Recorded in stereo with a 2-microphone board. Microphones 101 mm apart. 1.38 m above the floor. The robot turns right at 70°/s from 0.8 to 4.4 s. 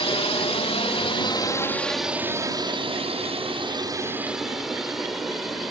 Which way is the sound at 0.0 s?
65° left (ahead or behind).